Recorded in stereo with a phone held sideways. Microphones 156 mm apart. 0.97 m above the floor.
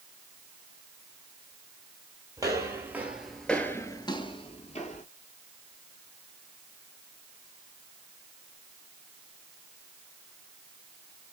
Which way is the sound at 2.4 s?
20° right (ahead or behind).